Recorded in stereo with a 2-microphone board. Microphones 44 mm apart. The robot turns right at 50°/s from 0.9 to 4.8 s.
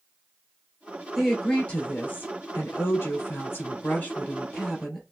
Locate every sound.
1.1 s a woman speaking: straight ahead, 2 m; by 5.0 s straight behind, 2 m